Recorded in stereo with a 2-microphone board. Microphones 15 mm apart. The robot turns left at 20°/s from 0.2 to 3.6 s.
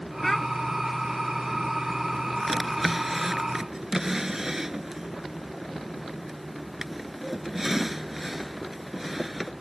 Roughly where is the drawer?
Centre.